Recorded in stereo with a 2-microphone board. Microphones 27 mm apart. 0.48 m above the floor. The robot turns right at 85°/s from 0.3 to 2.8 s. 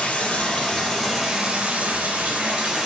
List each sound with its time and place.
0.0 s running water: 130° left, 4.5 m; by 2.9 s 20° right, 4.5 m